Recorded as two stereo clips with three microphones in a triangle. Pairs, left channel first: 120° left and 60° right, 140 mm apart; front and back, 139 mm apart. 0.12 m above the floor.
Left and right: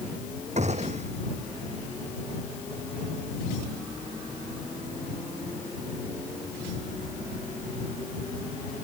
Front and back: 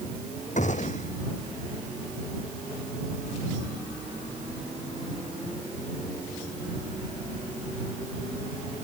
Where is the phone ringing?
No phone ringing in this recording.